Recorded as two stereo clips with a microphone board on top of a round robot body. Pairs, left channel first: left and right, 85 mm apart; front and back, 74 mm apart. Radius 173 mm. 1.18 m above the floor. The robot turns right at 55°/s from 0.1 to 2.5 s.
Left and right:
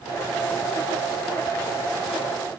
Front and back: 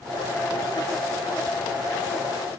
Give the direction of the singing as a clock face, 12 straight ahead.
I don't hear singing.